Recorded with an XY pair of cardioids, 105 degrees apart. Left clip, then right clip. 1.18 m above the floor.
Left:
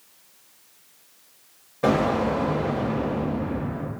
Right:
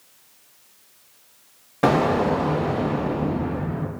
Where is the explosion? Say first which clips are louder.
Right 3 dB; 65° right, 1.3 m.